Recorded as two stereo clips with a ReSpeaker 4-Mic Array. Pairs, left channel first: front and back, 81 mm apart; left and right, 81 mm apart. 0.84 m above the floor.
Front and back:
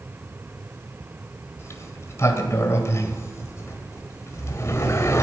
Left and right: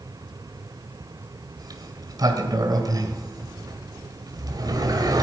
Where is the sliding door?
55° right, 1.8 m.